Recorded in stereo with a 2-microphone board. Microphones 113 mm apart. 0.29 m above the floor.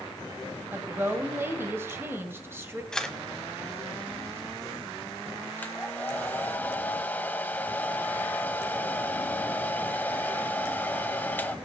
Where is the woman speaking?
20° right (ahead or behind), 1.2 m.